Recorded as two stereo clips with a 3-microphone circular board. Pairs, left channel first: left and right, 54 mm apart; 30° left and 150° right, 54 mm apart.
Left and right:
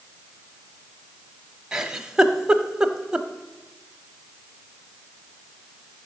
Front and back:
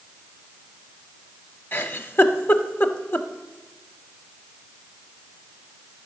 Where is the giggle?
15° right, 0.6 m.